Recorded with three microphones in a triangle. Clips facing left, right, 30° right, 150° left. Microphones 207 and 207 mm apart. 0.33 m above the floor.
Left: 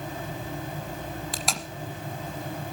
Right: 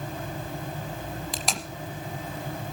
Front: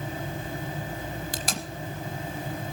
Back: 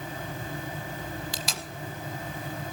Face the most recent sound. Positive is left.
turn(degrees=0)